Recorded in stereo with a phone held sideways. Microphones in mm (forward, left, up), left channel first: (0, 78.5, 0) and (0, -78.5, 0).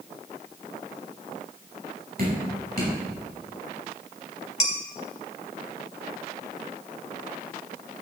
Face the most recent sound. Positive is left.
turn(degrees=50)  # may be behind; listen again after turning